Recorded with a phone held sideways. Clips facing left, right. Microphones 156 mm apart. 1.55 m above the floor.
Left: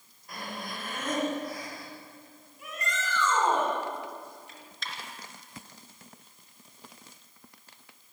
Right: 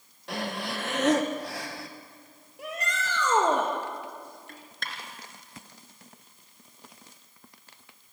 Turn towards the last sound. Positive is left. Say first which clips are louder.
# right 1 dB
turn(degrees=-60)  # may be behind; listen again after turning